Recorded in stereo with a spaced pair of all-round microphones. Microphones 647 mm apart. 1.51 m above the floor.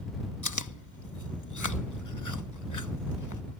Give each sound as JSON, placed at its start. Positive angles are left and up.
{"t": 0.4, "sound": "chewing", "side_deg": 25}